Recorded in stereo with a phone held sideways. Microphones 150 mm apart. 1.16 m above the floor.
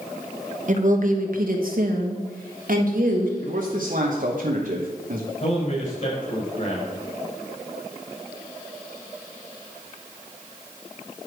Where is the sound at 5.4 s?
50° left (ahead or behind), 5 m.